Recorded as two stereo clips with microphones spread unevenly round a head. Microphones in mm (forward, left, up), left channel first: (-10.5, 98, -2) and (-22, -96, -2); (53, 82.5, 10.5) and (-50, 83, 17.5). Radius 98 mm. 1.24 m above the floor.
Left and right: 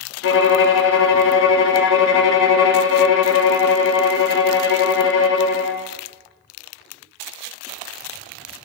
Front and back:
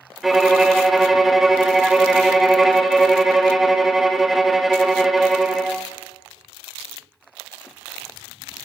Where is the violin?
95° left, 0.6 m.